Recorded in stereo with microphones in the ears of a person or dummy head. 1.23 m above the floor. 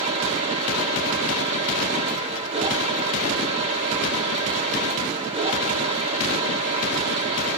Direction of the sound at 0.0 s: 35° right (ahead or behind).